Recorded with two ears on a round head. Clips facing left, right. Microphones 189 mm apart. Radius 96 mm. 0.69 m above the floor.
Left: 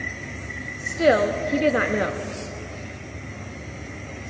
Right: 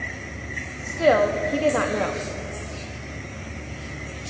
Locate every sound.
0.8 s a woman speaking: 20° left (ahead or behind), 0.7 m